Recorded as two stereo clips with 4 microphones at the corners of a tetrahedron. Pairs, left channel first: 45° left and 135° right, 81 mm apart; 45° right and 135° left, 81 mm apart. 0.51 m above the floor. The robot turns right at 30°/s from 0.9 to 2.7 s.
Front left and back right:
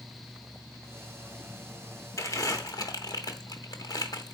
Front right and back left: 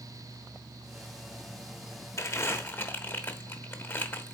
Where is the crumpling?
Straight ahead, 0.9 m; by 4.3 s 15° left, 0.9 m.